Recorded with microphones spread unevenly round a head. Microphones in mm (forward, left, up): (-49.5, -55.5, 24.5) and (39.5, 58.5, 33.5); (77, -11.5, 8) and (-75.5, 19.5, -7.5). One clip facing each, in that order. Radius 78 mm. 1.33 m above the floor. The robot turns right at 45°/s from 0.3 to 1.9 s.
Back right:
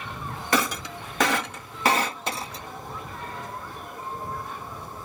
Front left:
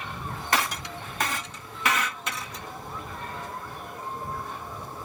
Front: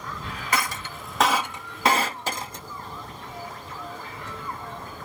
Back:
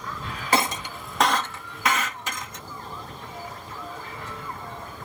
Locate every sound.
0.5 s breaking glass: 130° right; by 2.6 s 65° right